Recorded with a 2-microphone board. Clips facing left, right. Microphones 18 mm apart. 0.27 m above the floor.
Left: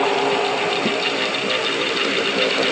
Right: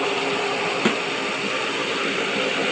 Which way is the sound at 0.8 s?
60° right (ahead or behind).